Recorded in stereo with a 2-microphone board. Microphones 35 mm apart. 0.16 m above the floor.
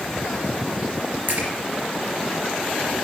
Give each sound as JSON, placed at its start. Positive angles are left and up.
{"t": 1.3, "sound": "a splash", "side_deg": -60, "distance_m": 3.0}